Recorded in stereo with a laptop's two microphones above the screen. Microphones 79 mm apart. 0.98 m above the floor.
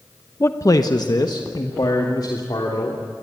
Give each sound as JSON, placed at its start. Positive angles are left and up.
{"t": 0.4, "sound": "a man speaking", "side_deg": 30, "distance_m": 0.8}